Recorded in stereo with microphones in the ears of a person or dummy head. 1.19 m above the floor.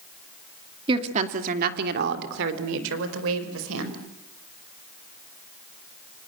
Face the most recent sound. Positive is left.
turn(degrees=-85)